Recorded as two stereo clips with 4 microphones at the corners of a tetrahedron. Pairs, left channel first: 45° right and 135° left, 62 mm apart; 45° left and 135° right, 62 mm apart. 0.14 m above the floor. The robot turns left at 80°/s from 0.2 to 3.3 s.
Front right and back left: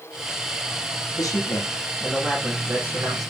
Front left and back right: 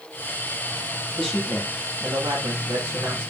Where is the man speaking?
35° right, 5 m; by 3.3 s 155° left, 5 m.